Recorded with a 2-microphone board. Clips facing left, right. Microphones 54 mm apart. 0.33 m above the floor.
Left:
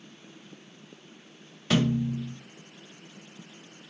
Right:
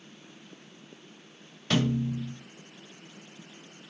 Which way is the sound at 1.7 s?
5° left (ahead or behind).